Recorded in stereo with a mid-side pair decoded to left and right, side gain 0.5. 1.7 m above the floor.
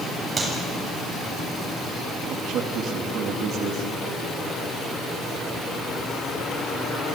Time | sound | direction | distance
0.4 | a clap | 25° right | 7.5 m
2.3 | a man speaking | 60° right | 3 m